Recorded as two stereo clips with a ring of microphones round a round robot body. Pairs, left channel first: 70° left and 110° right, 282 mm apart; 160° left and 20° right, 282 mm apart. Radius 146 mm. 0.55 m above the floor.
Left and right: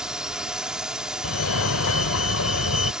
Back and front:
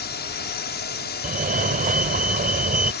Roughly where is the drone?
Behind.